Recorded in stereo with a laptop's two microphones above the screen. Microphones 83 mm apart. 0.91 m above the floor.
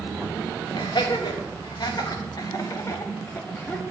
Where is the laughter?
65° left (ahead or behind), 1.9 m; by 3.8 s 15° left (ahead or behind), 1.0 m.